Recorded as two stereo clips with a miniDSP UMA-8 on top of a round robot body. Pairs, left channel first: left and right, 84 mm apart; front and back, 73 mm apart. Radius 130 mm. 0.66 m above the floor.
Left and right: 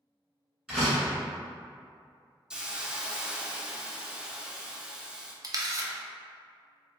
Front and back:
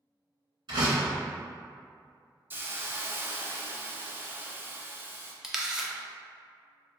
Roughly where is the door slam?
Behind.